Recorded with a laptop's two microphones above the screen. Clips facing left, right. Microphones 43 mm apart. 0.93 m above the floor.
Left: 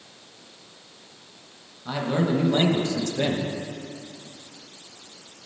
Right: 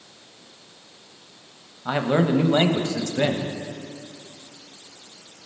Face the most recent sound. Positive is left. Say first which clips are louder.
# right 4 dB
turn(degrees=-40)  # may be behind; listen again after turning